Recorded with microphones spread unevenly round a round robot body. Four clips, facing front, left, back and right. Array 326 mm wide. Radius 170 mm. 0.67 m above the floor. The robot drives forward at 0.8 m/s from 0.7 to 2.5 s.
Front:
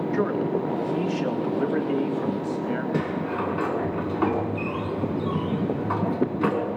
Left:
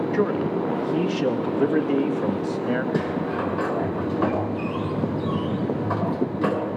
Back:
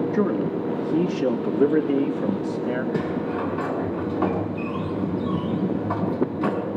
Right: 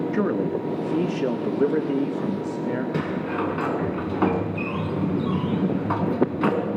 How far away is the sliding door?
About 5 m.